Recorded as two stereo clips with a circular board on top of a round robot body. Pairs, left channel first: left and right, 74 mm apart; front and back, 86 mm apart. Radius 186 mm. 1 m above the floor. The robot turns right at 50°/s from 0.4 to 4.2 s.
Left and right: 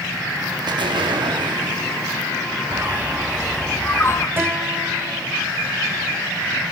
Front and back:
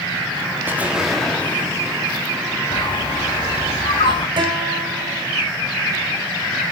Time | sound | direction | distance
0.7 | an explosion | 115° right | 1.4 m
2.7 | a bird | 35° right | 1.1 m
4.4 | a guitar | 150° right | 3.5 m